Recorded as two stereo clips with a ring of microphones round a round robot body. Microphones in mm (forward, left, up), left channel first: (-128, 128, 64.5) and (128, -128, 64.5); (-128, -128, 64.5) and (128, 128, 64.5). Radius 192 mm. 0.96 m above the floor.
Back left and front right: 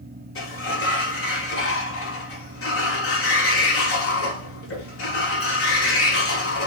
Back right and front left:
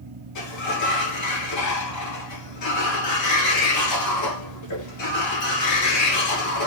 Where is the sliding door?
175° right, 2.0 m.